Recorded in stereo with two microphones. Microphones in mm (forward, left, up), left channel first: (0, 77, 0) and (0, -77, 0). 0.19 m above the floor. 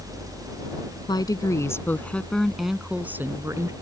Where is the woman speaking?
30° left (ahead or behind); by 3.7 s 20° right (ahead or behind).